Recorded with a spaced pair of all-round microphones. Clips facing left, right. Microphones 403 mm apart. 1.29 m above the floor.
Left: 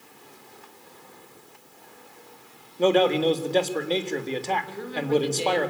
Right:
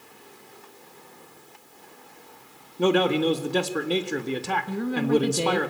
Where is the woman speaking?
65° right (ahead or behind), 1.9 m.